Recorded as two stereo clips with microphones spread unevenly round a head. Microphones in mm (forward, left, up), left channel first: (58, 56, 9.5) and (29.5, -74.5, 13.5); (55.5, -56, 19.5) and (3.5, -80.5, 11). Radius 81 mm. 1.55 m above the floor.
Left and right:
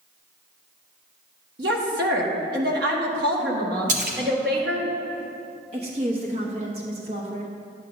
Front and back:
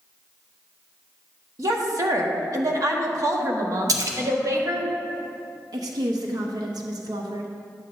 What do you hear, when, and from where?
1.6 s a woman speaking: 130° right, 1.4 m
3.9 s a splash: 145° right, 0.8 m
5.7 s a woman speaking: 160° right, 0.9 m